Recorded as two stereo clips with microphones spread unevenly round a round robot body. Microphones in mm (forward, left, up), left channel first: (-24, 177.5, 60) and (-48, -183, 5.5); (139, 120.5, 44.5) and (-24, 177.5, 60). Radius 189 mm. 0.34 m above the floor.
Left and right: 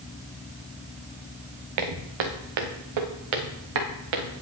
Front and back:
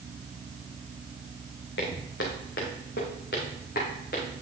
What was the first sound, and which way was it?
Footsteps, 65° right.